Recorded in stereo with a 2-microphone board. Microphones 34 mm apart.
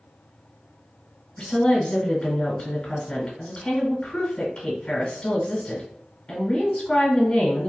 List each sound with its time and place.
1.4 s a woman speaking: 30° left (ahead or behind), 1.3 m